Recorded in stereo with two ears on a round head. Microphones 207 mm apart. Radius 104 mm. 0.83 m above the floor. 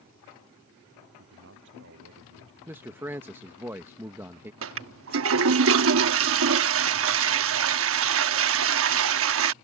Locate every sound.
1.2 s a man speaking: 50° right (ahead or behind)
2.7 s a man speaking: 10° right (ahead or behind)
4.6 s a toilet flushing: 60° right (ahead or behind)